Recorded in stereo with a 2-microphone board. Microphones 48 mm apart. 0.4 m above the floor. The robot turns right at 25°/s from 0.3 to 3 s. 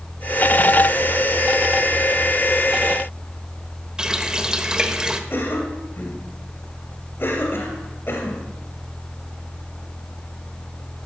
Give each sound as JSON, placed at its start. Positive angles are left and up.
{"t": 4.0, "sound": "a running tap", "side_deg": -15, "distance_m": 1.0}
{"t": 5.3, "sound": "a cough", "side_deg": 50, "distance_m": 2.5}